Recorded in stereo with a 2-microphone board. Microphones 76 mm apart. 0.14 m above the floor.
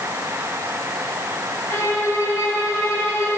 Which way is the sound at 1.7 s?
40° left (ahead or behind).